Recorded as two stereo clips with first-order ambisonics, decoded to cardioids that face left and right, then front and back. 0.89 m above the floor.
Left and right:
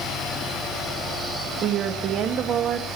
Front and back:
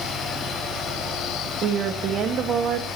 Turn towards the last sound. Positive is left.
turn(degrees=-135)